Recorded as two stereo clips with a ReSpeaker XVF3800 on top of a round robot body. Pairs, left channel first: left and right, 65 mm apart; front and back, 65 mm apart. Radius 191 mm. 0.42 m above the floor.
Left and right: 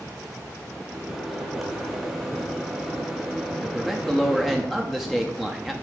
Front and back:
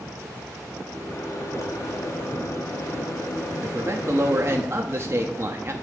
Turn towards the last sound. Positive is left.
turn(degrees=-175)